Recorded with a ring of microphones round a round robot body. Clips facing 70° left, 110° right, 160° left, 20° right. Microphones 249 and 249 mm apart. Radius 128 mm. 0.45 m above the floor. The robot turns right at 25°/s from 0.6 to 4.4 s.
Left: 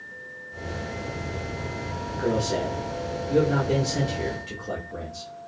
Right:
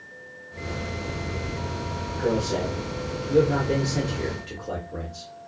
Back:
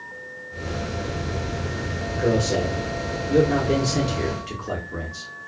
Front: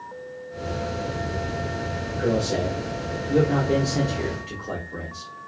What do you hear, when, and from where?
2.1 s a man speaking: 90° left, 0.9 m; by 5.3 s 150° left, 0.9 m